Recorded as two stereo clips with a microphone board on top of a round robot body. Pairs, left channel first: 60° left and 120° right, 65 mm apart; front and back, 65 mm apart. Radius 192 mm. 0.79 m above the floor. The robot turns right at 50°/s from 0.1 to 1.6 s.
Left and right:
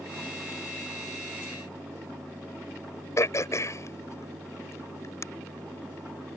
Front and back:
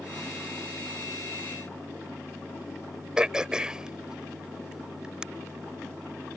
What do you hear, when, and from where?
3.2 s throat clearing: 100° left